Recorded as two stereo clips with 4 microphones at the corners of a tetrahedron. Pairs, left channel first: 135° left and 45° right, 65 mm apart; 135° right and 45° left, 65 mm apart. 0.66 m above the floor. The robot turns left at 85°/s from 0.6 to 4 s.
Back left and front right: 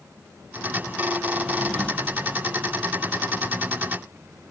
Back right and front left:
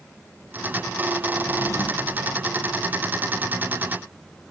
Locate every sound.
1.3 s a drawer: 110° right, 3 m; by 2.2 s 170° left, 3 m